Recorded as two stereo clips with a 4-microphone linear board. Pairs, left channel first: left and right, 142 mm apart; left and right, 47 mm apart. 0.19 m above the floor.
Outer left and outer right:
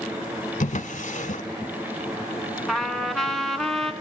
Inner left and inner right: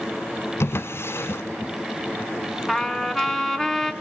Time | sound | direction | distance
0.6 | a drawer | 55° left (ahead or behind) | 0.8 m
2.7 | a trumpet | centre (ahead or behind) | 1.2 m